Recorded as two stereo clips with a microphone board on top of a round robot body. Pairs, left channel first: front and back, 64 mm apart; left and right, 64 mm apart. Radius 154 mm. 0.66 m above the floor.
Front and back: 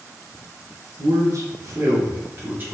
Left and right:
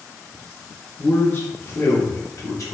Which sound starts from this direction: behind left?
A man speaking, at 1.0 s.